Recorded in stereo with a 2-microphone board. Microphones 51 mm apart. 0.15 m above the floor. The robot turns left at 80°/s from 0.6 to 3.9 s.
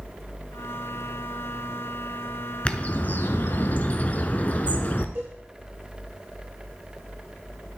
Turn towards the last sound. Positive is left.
turn(degrees=-60)  # may be behind; listen again after turning